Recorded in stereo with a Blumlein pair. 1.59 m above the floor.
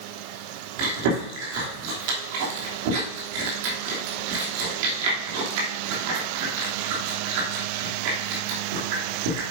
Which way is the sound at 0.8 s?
45° right.